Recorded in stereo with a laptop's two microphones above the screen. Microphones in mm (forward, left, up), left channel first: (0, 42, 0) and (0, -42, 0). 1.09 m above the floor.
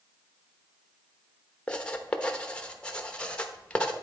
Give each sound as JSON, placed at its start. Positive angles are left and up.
{"t": 1.7, "sound": "writing", "side_deg": 10, "distance_m": 0.9}